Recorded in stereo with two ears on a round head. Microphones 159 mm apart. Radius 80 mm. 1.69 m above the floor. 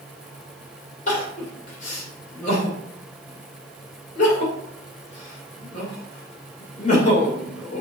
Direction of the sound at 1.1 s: 45° left (ahead or behind).